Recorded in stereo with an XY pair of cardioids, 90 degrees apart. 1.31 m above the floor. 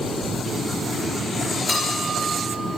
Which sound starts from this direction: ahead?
A bell, at 1.7 s.